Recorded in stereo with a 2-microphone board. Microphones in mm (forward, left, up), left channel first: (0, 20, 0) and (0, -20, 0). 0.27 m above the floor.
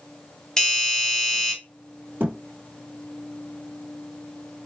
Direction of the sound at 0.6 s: 15° left (ahead or behind).